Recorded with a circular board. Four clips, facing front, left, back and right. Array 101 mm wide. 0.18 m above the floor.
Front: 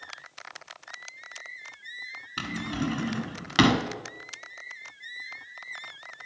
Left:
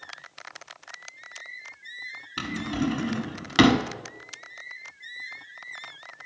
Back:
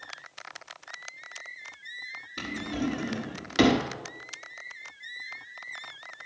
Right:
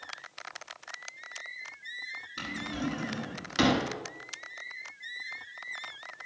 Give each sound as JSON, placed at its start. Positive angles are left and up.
{"t": 2.4, "sound": "a drawer", "azimuth_deg": 40, "distance_m": 0.9}